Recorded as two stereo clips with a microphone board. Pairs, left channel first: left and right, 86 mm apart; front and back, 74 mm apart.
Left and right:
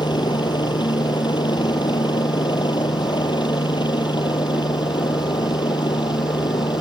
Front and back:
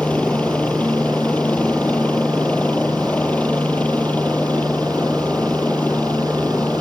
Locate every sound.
0.0 s a helicopter: 70° left